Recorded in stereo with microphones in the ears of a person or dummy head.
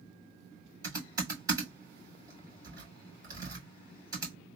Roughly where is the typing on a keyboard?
Right.